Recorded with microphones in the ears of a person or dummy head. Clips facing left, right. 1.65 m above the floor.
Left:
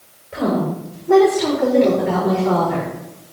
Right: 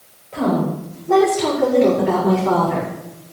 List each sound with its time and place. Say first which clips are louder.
0.3 s a woman speaking: right 1 dB; 25° left (ahead or behind), 7 m; by 2.9 s centre (ahead or behind), 5 m